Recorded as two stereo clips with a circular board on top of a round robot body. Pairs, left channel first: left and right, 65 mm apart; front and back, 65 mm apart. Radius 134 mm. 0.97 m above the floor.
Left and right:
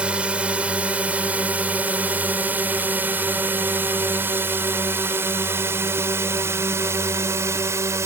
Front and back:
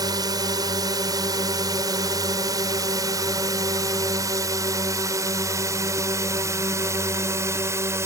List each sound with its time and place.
0.0 s a drone: 160° right; by 8.1 s 135° right